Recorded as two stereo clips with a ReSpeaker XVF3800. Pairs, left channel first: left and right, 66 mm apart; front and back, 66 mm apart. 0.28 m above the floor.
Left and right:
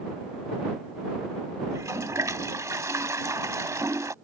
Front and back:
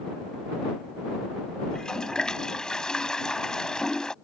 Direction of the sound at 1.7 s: 80° right.